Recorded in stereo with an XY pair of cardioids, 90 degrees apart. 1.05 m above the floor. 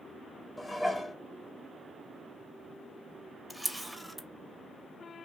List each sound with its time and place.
0.6 s dishes clattering: 20° left, 0.8 m
3.5 s a camera shutter: 5° right, 0.6 m